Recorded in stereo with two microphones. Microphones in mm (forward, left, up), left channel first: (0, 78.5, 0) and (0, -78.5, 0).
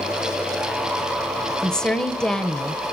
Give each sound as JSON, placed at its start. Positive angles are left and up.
{"t": 1.6, "sound": "a woman speaking", "side_deg": 5, "distance_m": 1.0}